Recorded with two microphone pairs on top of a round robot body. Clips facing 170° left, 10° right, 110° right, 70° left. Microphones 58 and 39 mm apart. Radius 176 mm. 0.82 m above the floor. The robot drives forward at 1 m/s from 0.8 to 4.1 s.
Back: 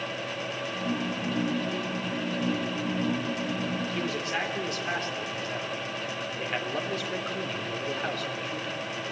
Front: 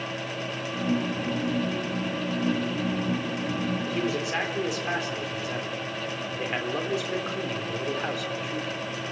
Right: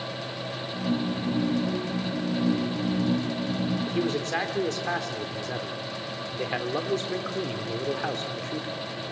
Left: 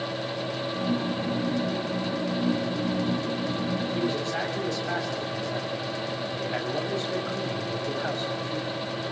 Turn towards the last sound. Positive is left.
turn(degrees=-90)